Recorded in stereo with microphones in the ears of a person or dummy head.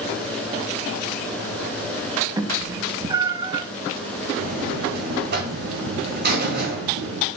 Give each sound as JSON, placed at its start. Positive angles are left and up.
{"t": 2.4, "sound": "a cat meowing", "side_deg": -25, "distance_m": 0.8}
{"t": 4.4, "sound": "a buzzer", "side_deg": -60, "distance_m": 2.5}